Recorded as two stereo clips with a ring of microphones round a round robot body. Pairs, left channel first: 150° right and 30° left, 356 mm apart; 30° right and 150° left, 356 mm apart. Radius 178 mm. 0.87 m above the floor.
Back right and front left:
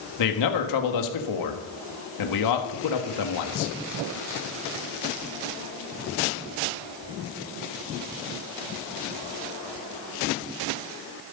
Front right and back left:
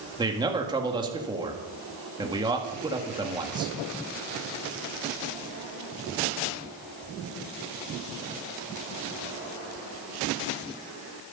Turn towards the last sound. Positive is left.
turn(degrees=-135)